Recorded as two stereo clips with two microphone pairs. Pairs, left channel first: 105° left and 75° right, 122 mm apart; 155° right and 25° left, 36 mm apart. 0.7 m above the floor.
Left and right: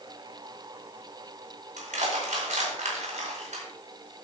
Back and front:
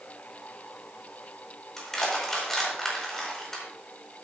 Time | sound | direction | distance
1.8 | crushing | 80° right | 4.5 m